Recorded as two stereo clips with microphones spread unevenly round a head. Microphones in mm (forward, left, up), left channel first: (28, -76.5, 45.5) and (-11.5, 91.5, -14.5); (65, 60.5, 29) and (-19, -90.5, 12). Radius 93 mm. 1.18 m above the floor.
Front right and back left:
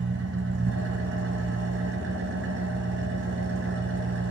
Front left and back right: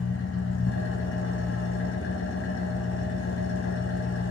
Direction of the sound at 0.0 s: 75° left.